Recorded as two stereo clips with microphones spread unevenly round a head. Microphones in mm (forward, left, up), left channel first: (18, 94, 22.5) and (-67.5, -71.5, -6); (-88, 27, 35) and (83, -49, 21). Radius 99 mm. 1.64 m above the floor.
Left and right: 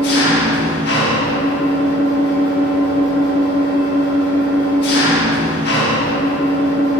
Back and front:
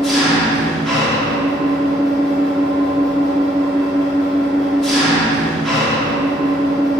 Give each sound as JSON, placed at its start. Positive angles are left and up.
{"t": 0.0, "sound": "an engine running", "azimuth_deg": 70, "distance_m": 1.8}